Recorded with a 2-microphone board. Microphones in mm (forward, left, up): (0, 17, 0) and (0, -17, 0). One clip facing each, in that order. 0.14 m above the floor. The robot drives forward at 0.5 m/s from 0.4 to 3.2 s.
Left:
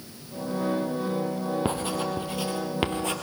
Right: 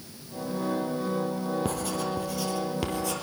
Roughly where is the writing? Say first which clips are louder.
Left 2 dB; left.